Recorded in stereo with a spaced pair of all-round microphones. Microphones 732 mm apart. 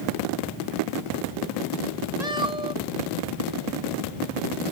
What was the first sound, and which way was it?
A cat meowing, 60° right (ahead or behind).